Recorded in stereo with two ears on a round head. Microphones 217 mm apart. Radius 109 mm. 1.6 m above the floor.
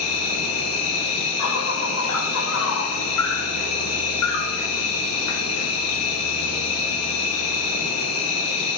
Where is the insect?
65° left (ahead or behind), 1.2 m.